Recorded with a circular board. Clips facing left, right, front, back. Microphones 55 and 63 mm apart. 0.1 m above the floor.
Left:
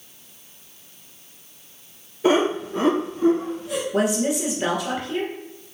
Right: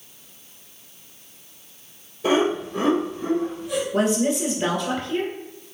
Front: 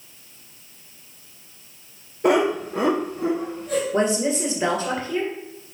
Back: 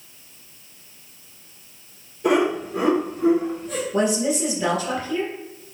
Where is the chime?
I don't hear a chime.